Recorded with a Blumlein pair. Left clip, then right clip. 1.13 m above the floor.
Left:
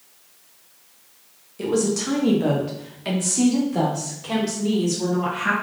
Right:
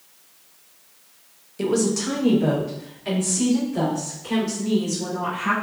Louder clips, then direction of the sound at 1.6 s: Even; 15° right.